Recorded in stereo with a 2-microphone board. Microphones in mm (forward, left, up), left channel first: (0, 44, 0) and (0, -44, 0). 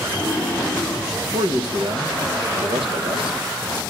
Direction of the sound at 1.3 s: 80° right.